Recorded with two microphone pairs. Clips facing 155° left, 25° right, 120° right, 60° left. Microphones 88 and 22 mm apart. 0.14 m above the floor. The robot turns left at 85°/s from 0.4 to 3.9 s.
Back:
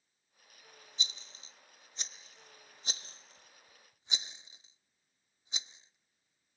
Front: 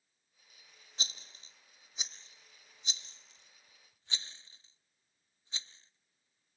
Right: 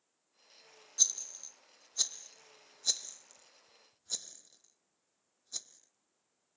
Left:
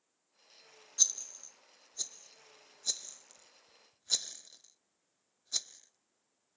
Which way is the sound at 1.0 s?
25° right.